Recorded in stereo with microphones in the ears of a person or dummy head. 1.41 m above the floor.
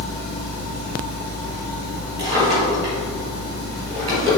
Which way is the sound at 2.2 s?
30° right (ahead or behind).